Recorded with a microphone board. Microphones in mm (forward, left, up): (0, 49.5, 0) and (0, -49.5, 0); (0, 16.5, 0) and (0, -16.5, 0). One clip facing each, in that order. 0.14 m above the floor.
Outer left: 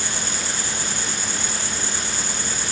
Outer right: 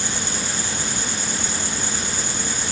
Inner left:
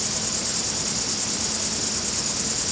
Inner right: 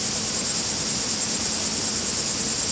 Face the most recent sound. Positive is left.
turn(degrees=-20)  # may be behind; listen again after turning